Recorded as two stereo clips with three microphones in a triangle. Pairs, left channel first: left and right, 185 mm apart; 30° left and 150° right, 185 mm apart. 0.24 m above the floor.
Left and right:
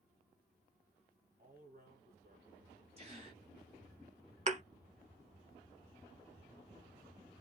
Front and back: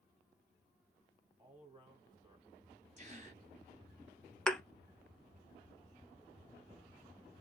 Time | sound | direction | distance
1.4 | a man speaking | 90° right | 2.0 m
3.0 | a gasp | 125° right | 1.9 m
4.5 | a thud | 55° right | 0.5 m